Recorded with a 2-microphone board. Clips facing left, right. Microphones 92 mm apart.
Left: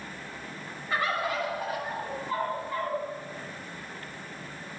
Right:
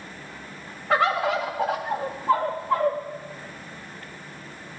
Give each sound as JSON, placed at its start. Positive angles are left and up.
{"t": 0.9, "sound": "a bird", "side_deg": -75, "distance_m": 1.8}